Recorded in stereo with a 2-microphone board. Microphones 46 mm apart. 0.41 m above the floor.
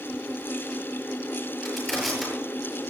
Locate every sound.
1.6 s crushing: 5° left (ahead or behind), 9 m